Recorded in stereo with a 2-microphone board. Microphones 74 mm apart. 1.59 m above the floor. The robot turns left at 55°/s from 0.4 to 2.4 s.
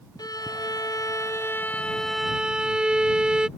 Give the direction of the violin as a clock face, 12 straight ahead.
9 o'clock.